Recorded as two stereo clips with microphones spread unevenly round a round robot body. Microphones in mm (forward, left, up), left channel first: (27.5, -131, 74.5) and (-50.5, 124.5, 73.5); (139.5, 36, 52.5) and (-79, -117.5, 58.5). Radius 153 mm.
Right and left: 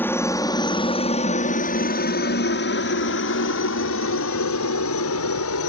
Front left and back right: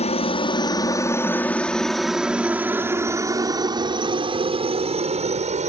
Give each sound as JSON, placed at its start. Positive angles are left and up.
{"t": 0.0, "sound": "a helicopter", "azimuth_deg": 0}